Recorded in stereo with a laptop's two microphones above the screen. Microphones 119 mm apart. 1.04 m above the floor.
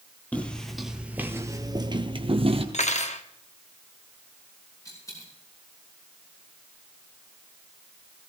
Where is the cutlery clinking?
75° left (ahead or behind), 1.0 m.